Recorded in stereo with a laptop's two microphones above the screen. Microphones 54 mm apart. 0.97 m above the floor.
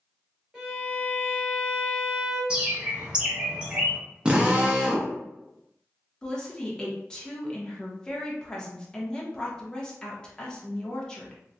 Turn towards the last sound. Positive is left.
turn(degrees=10)  # may be behind; listen again after turning